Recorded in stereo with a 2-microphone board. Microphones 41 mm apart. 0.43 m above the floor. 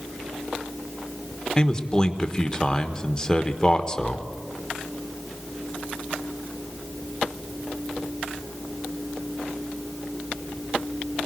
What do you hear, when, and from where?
1.6 s a man speaking: 20° left (ahead or behind), 1.3 m